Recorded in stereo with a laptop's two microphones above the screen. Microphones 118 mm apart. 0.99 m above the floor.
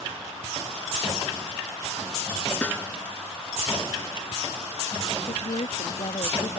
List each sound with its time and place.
2.6 s a snare drum: 15° left (ahead or behind)
5.2 s a woman speaking: 70° left (ahead or behind)